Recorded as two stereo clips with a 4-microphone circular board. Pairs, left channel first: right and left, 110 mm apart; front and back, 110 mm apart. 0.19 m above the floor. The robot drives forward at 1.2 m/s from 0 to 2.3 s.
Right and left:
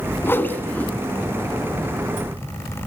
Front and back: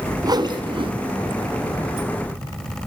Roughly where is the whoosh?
Behind right.